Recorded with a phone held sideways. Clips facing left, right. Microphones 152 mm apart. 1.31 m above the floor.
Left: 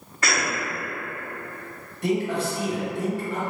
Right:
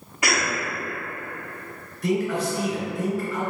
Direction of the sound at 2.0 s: 75° left (ahead or behind).